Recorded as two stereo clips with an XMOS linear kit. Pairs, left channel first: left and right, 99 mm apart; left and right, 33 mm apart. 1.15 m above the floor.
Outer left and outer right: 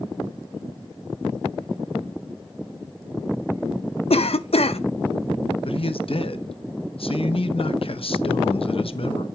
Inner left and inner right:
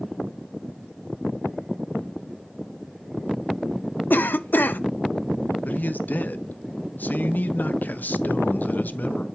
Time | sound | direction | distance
4.1 | a cough | 80° left | 0.8 m
5.7 | a man speaking | 70° left (ahead or behind) | 0.9 m